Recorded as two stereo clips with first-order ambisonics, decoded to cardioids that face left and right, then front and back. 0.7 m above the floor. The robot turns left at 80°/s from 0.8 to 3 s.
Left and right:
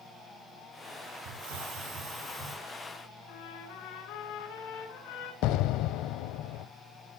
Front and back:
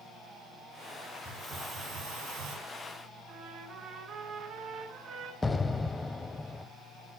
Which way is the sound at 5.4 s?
75° left.